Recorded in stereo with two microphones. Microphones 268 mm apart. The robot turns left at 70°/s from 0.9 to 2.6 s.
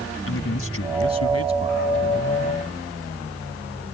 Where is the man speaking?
115° left; by 1.9 s 50° left.